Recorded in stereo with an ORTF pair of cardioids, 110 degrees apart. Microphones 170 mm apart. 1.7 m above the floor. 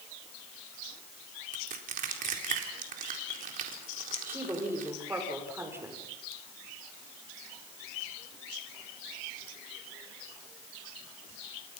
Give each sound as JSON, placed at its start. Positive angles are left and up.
{"t": 1.5, "sound": "crushing", "azimuth_deg": -55, "distance_m": 4.0}
{"t": 4.3, "sound": "a woman speaking", "azimuth_deg": -15, "distance_m": 6.5}